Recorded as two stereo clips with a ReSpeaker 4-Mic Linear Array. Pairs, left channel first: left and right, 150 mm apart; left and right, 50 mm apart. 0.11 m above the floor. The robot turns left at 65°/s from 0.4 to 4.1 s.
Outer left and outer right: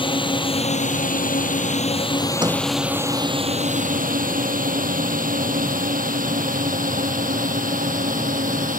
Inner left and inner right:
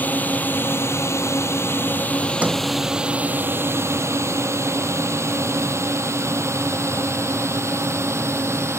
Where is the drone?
35° left (ahead or behind); by 8.8 s 65° right (ahead or behind).